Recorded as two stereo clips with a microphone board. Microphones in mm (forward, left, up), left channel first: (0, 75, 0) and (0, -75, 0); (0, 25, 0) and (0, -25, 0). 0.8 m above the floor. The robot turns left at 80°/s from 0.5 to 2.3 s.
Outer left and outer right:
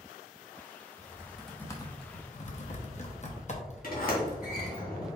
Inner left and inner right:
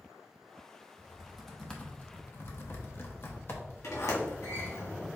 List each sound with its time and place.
1.0 s typing on a keyboard: 30° right (ahead or behind), 0.9 m; by 4.8 s 50° left (ahead or behind), 0.9 m
3.8 s a sliding door: 75° left (ahead or behind), 1.7 m